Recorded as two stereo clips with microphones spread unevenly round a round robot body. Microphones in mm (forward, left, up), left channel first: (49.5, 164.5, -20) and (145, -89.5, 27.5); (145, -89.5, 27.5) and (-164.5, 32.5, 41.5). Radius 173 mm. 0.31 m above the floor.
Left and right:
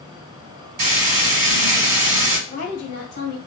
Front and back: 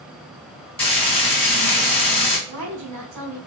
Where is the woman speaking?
125° left, 1.5 m.